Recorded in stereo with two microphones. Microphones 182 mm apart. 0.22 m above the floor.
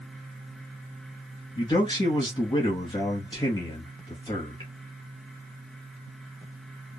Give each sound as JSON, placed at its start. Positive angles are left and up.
{"t": 1.6, "sound": "a man speaking", "side_deg": 25, "distance_m": 1.4}